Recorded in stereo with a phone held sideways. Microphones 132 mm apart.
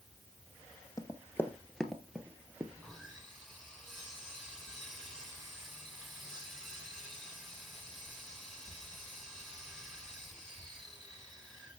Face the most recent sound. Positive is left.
turn(degrees=5)  # may be behind; listen again after turning